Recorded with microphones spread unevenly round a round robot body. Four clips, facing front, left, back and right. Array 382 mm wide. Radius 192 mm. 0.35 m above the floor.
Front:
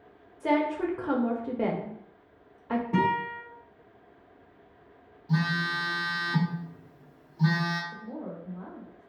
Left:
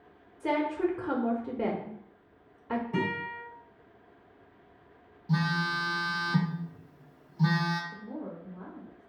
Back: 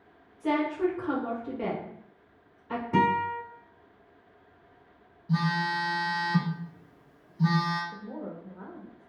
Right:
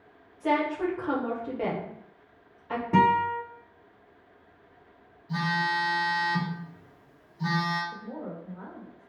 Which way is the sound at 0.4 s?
70° left.